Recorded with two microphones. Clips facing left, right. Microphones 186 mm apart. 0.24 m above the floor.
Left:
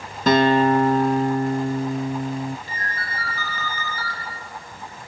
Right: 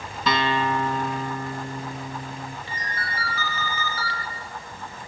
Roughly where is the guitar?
Left.